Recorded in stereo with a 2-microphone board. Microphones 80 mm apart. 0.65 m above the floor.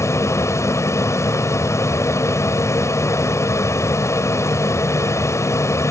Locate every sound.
0.0 s an aircraft: 40° left (ahead or behind)